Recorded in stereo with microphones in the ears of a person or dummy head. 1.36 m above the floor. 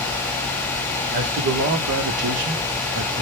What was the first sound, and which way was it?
A man speaking, 55° right (ahead or behind).